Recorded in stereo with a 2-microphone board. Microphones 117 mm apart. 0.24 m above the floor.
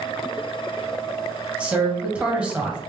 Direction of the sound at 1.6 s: 10° right (ahead or behind).